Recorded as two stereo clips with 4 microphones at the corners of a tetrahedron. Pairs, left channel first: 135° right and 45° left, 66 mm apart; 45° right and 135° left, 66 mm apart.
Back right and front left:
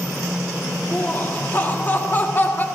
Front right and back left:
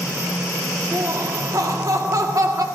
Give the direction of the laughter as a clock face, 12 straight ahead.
6 o'clock.